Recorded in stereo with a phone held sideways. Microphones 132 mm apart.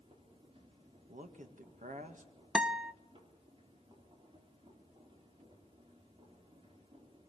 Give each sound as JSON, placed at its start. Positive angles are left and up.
{"t": 0.0, "sound": "a machine running", "side_deg": -45, "distance_m": 3.5}
{"t": 1.1, "sound": "a man speaking", "side_deg": -75, "distance_m": 1.8}
{"t": 2.5, "sound": "a guitar", "side_deg": -5, "distance_m": 0.5}